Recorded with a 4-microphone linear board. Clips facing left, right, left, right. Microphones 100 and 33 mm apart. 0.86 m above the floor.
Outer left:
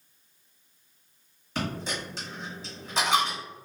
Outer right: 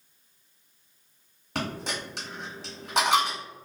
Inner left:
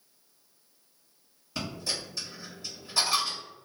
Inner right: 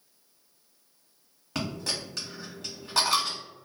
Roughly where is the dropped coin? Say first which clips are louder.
Even, inner right 2 dB; right.